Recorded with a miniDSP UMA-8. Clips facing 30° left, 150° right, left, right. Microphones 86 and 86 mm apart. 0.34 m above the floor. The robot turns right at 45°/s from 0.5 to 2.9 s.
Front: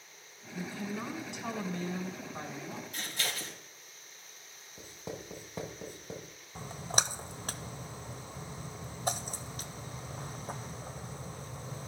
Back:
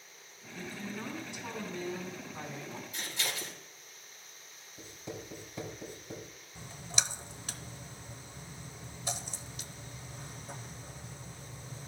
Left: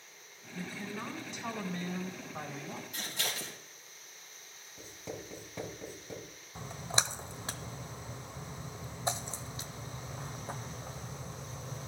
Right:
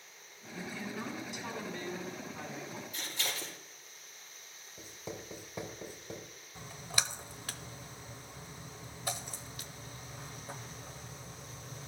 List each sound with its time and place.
0.5 s a woman speaking: 5° right, 3 m; by 2.8 s 95° left, 3 m
2.9 s scissors: 65° left, 3.5 m
4.8 s writing: 15° right, 2.5 m
6.5 s a splash: 35° left, 0.6 m